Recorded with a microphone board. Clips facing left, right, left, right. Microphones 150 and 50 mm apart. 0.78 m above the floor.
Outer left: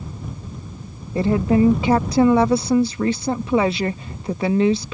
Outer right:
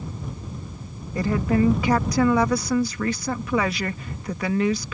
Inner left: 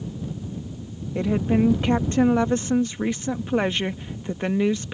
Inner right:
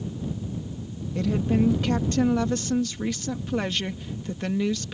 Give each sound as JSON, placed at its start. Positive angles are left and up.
{"t": 1.1, "sound": "a woman speaking", "side_deg": 25}